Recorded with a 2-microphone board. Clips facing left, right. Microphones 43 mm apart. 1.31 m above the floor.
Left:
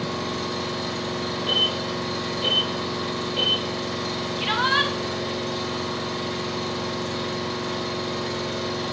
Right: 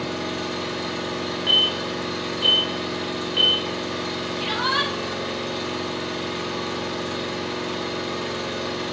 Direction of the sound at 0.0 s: 35° right (ahead or behind).